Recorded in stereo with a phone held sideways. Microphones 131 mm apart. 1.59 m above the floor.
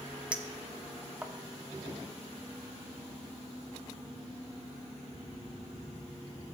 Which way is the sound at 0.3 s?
10° right (ahead or behind).